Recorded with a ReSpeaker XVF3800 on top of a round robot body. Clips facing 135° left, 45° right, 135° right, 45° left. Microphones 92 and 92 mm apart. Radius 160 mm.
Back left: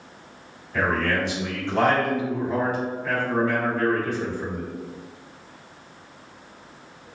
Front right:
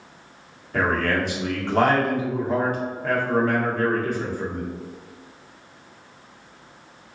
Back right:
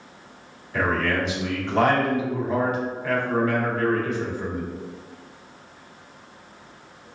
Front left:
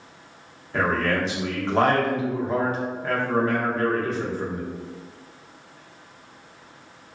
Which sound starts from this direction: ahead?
A man speaking, at 0.7 s.